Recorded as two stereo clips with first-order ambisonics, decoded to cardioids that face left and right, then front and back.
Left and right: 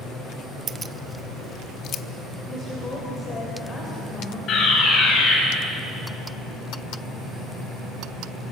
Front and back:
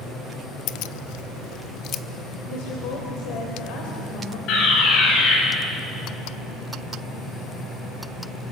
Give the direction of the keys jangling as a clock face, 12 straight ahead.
1 o'clock.